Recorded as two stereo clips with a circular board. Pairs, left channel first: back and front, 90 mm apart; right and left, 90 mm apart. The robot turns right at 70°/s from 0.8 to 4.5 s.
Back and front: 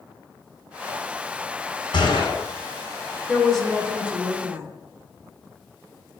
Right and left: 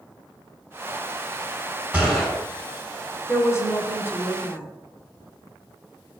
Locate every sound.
1.9 s a gunshot: 165° left, 2.5 m; by 2.4 s 165° right, 2.5 m
3.3 s a woman speaking: 115° right, 1.0 m; by 4.6 s 30° right, 1.0 m